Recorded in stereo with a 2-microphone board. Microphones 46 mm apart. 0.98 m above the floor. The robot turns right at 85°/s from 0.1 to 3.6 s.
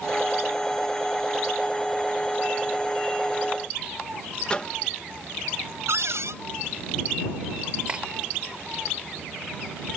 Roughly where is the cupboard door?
Right.